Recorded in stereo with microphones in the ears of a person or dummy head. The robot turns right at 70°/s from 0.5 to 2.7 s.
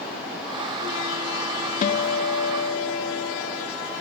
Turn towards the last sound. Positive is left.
turn(degrees=115)